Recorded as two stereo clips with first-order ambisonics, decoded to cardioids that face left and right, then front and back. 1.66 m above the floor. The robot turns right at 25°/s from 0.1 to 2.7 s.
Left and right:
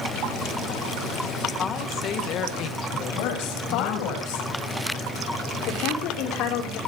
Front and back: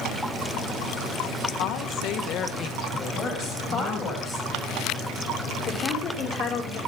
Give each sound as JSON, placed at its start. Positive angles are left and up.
{"t": 1.6, "sound": "a woman speaking", "azimuth_deg": 25, "distance_m": 2.0}
{"t": 3.1, "sound": "a woman speaking", "azimuth_deg": 65, "distance_m": 8.0}
{"t": 5.7, "sound": "a woman speaking", "azimuth_deg": 60, "distance_m": 6.0}